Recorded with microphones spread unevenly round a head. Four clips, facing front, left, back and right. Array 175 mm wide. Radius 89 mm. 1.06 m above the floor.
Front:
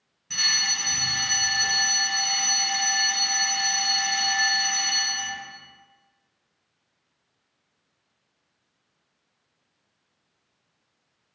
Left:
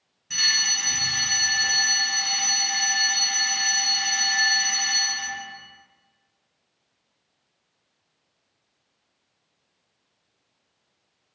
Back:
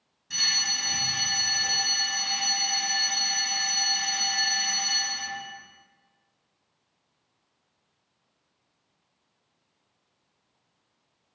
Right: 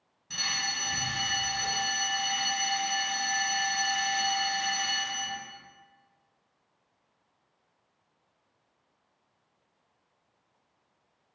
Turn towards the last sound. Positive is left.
turn(degrees=-85)